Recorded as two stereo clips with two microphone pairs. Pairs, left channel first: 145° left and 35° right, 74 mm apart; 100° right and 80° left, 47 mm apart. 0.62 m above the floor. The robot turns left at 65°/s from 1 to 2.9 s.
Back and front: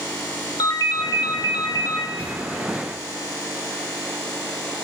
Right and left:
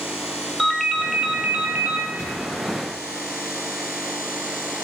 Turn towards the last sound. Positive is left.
turn(degrees=-145)